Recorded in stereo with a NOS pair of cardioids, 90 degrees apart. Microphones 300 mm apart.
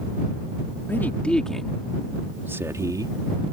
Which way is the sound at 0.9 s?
5° left.